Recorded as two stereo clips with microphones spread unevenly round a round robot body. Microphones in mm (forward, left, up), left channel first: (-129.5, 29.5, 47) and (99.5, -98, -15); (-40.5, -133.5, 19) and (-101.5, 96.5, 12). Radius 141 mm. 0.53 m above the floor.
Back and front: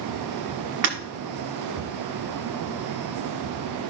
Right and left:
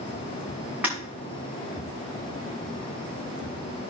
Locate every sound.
0.8 s breaking glass: 20° left, 1.7 m